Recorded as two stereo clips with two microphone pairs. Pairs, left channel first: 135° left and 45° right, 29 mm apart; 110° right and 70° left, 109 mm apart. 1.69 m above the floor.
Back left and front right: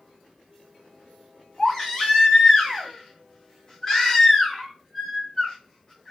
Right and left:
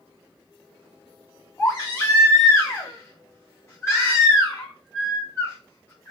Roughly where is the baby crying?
Behind.